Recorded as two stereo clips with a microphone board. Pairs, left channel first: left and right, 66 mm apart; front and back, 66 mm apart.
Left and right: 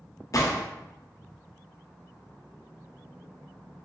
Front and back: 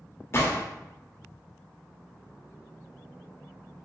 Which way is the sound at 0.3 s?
50° left.